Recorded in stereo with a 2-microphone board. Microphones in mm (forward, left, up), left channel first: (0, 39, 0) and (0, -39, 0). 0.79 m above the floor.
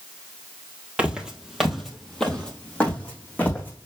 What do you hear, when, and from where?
1.0 s footsteps: 15° right (ahead or behind), 1.4 m; by 3.9 s 25° left (ahead or behind), 2.5 m